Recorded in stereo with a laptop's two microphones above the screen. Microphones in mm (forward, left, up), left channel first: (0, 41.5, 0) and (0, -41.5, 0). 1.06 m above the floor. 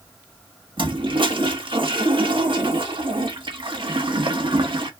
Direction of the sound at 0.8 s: 85° right.